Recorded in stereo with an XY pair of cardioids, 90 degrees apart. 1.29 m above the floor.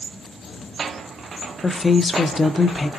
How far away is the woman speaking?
About 0.6 m.